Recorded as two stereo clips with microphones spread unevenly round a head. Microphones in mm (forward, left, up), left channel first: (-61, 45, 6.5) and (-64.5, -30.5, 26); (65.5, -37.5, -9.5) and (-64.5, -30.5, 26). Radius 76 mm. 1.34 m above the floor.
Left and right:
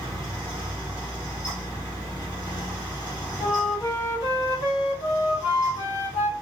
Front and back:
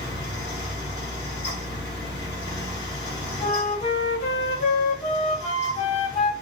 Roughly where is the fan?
Ahead.